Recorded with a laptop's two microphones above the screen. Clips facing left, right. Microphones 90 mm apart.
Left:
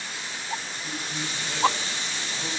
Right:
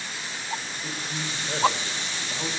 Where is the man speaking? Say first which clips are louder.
Even; 35° right (ahead or behind), 4.5 m.